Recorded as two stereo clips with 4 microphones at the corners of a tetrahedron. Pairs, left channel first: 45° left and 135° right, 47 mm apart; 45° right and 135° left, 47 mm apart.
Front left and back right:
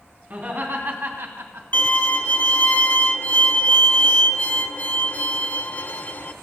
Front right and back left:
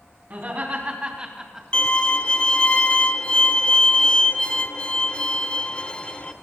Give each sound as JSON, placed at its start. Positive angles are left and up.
{"t": 0.3, "sound": "laughter", "azimuth_deg": 180, "distance_m": 3.0}
{"t": 1.7, "sound": "a violin", "azimuth_deg": 15, "distance_m": 0.6}